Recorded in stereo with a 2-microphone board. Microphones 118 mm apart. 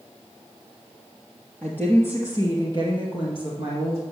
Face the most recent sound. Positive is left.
turn(degrees=60)  # may be behind; listen again after turning